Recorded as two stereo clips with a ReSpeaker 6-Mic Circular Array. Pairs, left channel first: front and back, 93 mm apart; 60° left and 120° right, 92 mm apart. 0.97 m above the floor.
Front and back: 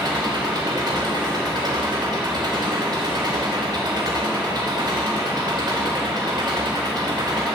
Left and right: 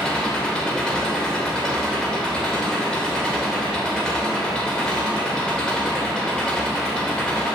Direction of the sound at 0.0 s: 140° left.